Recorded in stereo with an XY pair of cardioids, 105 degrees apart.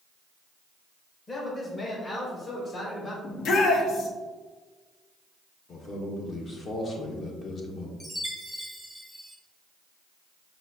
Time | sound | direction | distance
1.3 | a man speaking | 30° left | 1.1 m
3.2 | a shout | 70° left | 1.1 m
5.7 | a man speaking | 50° left | 1.4 m
8.0 | a chime | 5° left | 1.0 m